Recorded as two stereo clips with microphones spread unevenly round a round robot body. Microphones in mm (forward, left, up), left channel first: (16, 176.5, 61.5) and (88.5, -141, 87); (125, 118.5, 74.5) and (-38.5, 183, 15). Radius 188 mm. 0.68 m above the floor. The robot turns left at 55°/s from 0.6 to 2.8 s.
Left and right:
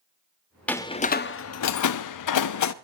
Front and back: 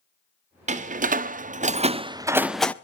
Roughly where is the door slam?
Behind.